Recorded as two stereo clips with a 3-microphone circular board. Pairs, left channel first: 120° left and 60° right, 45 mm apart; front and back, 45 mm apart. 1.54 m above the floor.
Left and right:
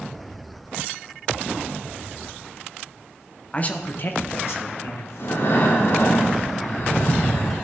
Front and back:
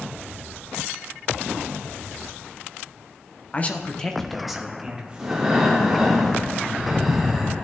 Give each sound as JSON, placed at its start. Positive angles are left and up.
{"t": 3.5, "sound": "a man speaking", "azimuth_deg": 60, "distance_m": 1.1}
{"t": 5.2, "sound": "breathing", "azimuth_deg": 100, "distance_m": 3.0}